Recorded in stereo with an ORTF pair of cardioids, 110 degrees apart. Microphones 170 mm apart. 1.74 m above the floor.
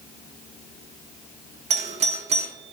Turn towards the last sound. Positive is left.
turn(degrees=-40)